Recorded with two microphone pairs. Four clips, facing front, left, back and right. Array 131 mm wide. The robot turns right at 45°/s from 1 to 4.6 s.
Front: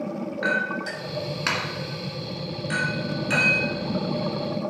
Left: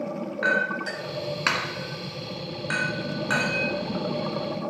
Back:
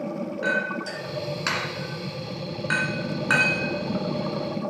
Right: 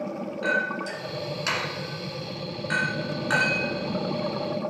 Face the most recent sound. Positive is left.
turn(degrees=-130)